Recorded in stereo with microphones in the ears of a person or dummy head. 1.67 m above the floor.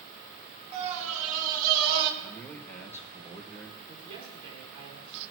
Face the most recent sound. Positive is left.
turn(degrees=-35)  # may be behind; listen again after turning